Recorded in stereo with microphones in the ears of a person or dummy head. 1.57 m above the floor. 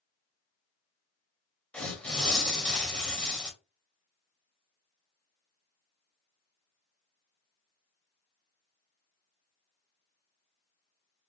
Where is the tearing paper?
5° left (ahead or behind), 0.9 m.